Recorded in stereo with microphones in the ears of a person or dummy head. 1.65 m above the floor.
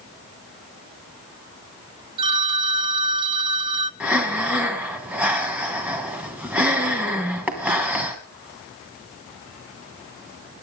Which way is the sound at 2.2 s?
25° right (ahead or behind).